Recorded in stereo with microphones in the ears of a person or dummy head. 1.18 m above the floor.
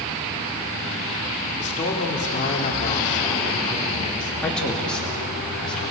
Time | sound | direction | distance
1.6 | a man speaking | 40° left (ahead or behind) | 3.5 m
4.4 | a man speaking | centre (ahead or behind) | 2.5 m